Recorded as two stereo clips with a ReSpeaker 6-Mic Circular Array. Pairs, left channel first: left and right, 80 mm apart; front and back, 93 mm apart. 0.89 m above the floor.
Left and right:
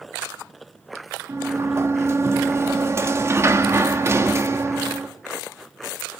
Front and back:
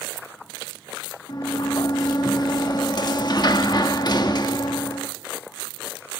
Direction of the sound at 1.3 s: 35° right.